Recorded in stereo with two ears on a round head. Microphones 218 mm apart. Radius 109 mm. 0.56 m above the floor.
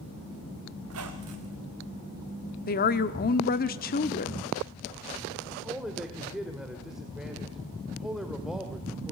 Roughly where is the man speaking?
Centre.